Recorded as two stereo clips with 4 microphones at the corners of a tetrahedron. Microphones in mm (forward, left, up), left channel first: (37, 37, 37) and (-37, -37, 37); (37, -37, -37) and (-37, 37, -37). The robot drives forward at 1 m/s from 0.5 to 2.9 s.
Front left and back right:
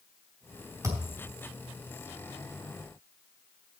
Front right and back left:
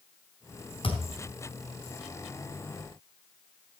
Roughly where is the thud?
Right.